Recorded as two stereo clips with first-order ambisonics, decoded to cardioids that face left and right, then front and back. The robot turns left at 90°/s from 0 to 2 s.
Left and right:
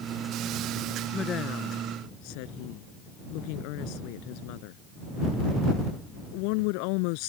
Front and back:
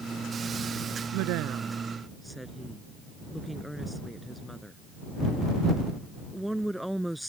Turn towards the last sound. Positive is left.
turn(degrees=90)